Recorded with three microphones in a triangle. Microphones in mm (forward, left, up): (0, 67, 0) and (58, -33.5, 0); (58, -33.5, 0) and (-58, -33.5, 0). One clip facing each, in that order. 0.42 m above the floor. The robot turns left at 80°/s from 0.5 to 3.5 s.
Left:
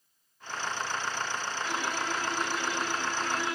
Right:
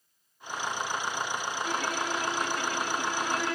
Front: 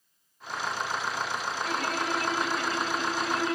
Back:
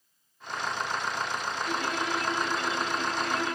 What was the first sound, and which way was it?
A violin, 15° right.